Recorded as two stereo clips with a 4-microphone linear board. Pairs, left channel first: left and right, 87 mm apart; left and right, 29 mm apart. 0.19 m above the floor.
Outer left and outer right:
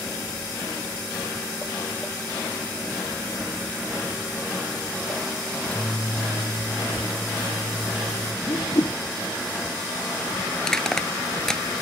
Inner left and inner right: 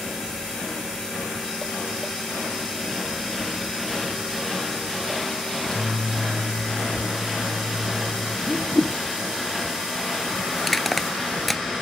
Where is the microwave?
20° left (ahead or behind).